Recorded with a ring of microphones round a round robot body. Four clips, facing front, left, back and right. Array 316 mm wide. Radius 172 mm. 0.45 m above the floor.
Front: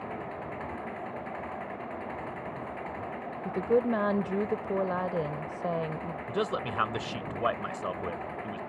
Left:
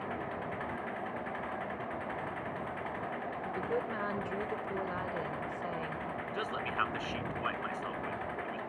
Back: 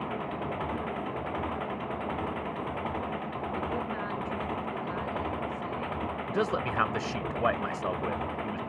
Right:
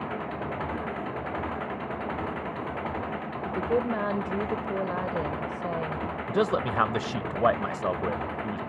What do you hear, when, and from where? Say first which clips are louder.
0.0 s an engine running: right 5 dB, back 4 dB; 125° right
3.5 s a woman speaking: right 10 dB, front 9 dB; 30° right
6.3 s a man speaking: right 15 dB, back 1 dB; 95° right